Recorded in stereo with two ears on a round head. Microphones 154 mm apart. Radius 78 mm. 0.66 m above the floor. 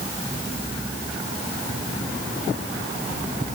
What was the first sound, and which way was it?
Only background noise.